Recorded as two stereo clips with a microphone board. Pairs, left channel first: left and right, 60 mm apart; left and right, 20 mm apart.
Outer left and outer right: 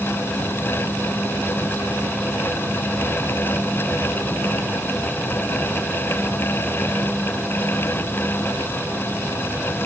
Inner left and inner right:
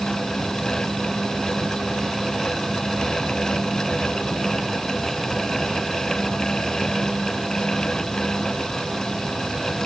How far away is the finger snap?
I don't hear a finger snap.